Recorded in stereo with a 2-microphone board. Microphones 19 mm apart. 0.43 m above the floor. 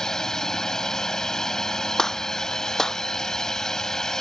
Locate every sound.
0.0 s a drone: 35° left (ahead or behind)
2.0 s a gunshot: 30° left (ahead or behind)